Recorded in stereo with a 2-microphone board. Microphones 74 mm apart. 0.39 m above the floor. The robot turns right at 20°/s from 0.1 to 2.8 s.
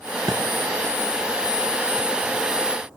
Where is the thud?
65° right (ahead or behind), 1.1 m.